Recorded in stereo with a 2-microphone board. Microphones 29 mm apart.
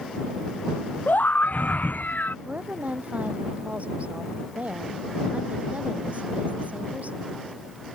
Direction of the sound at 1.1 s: 80° left.